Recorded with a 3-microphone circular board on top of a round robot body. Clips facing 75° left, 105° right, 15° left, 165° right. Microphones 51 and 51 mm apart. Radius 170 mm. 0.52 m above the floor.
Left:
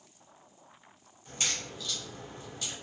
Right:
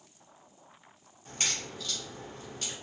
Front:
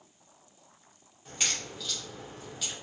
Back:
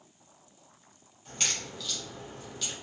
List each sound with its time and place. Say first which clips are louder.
1.2 s a crack: even, even; 65° right, 1.9 m